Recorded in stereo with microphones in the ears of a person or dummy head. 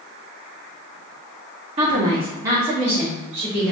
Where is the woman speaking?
30° right (ahead or behind), 0.8 m; by 3.7 s 10° right (ahead or behind), 3 m.